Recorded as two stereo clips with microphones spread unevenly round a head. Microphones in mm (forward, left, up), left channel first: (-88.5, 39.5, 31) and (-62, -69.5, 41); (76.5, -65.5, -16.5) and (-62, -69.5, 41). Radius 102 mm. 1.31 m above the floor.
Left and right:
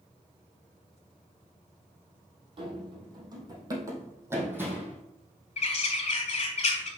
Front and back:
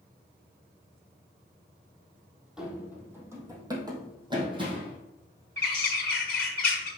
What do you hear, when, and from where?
2.6 s running footsteps: 110° right, 2.5 m; by 5.0 s 150° right, 3 m
5.6 s a bird: 105° left, 1.3 m